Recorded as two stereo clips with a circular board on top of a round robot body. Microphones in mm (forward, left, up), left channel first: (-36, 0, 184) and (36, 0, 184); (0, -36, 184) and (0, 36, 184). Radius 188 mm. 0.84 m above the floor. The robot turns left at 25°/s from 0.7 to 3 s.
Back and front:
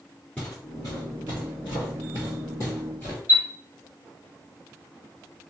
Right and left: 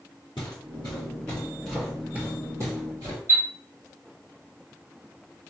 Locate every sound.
0.4 s footsteps: 110° right, 1.0 m; by 3.2 s 125° left, 2 m
3.3 s a chime: 140° left, 1.6 m